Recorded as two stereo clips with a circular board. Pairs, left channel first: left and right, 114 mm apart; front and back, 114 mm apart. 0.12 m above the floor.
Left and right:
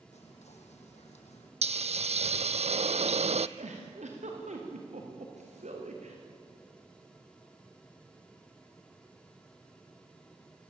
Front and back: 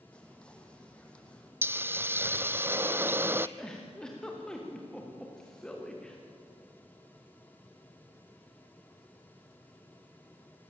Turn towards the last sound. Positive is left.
turn(degrees=-85)